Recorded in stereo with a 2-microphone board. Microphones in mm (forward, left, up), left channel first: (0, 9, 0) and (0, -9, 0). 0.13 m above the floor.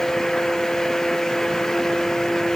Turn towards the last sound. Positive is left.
No sound to turn to.